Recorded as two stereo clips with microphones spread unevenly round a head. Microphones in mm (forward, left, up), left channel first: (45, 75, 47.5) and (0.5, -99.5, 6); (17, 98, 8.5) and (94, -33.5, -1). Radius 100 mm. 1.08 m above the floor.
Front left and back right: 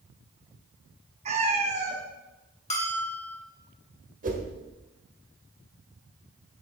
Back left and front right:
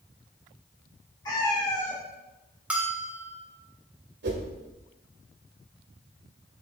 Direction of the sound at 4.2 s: 55° right.